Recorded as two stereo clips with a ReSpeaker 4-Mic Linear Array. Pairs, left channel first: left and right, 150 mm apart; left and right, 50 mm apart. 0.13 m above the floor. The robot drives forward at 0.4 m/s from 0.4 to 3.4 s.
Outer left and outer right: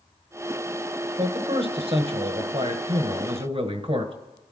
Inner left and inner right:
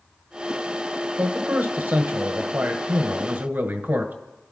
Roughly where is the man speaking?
Right.